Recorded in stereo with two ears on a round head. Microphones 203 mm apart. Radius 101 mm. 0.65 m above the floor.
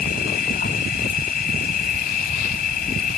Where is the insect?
40° left (ahead or behind).